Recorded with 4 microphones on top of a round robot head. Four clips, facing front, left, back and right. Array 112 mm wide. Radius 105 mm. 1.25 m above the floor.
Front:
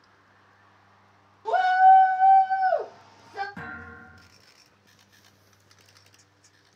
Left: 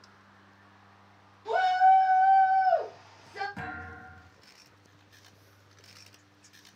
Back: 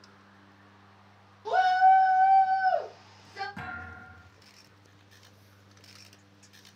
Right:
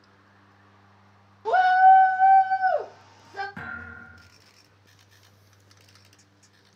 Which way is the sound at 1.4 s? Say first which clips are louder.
Right 6 dB, front 4 dB; 85° right.